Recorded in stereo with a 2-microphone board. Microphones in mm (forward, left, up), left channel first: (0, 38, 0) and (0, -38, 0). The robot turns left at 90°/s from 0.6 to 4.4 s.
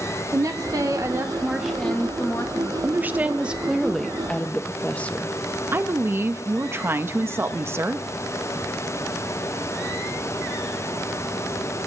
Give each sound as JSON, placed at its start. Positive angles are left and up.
{"t": 0.3, "sound": "a woman speaking", "azimuth_deg": -80, "distance_m": 0.8}
{"t": 2.8, "sound": "a woman speaking", "side_deg": -25, "distance_m": 0.6}
{"t": 5.7, "sound": "a woman speaking", "side_deg": -30, "distance_m": 0.7}